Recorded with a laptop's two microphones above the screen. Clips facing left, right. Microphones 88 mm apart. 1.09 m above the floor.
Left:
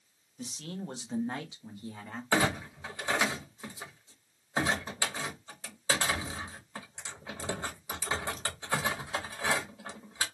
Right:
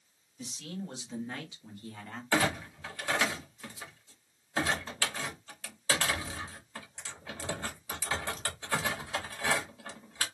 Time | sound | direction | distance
0.4 | a man speaking | 45° left (ahead or behind) | 1.2 m
2.3 | a clunk | 20° left (ahead or behind) | 1.0 m